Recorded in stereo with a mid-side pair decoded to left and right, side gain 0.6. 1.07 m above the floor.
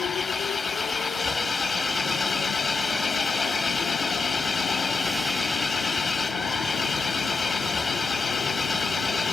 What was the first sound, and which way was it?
An engine running, 20° left.